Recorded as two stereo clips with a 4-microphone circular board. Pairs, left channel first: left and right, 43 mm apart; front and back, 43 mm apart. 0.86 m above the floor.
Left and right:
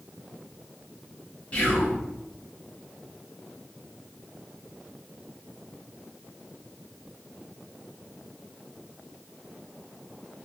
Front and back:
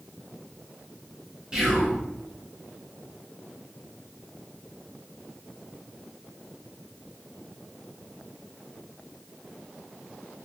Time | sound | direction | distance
1.5 | whispering | 120° left | 0.7 m